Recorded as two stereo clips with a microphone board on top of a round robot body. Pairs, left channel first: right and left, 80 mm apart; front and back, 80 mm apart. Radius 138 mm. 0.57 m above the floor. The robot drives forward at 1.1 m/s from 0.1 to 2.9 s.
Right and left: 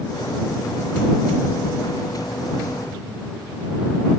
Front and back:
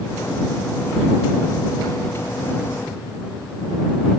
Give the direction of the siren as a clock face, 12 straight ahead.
I don't hear a siren.